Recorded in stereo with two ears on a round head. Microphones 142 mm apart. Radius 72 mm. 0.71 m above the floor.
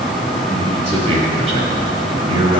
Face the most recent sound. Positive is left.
turn(degrees=-40)  # may be behind; listen again after turning